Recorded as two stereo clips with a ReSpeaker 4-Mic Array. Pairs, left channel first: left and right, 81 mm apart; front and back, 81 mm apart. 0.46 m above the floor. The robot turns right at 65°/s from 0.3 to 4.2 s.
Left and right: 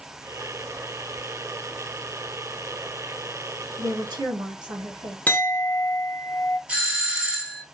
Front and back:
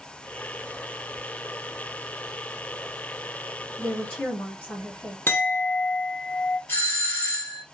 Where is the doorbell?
30° right, 1.2 m.